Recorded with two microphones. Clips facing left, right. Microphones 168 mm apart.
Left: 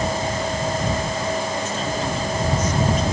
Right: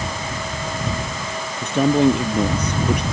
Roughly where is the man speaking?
Right.